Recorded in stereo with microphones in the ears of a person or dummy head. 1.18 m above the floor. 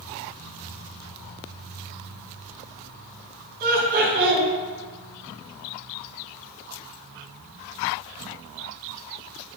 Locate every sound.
3.6 s laughter: 45° right (ahead or behind), 1.5 m